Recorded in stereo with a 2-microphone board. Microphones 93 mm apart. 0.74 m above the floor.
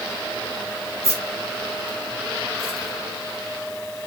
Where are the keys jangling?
35° left (ahead or behind), 1.9 m.